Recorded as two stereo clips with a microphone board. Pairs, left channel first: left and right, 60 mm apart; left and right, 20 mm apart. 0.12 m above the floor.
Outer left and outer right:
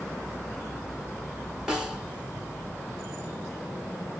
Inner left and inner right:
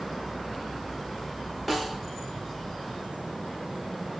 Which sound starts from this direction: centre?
A snare drum, at 1.7 s.